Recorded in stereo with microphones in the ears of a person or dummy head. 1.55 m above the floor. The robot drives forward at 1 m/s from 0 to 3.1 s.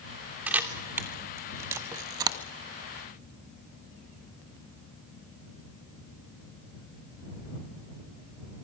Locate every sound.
0.5 s a camera shutter: 10° right (ahead or behind), 3 m; by 2.4 s 25° right (ahead or behind), 1.1 m